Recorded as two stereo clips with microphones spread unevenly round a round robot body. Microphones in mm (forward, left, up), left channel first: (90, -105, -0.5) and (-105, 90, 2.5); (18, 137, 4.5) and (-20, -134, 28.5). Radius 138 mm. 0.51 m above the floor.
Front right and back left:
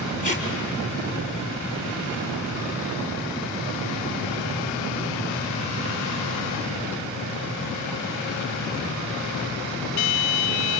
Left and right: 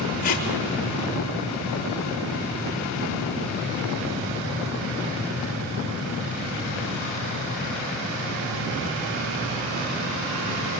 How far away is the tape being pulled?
About 5 m.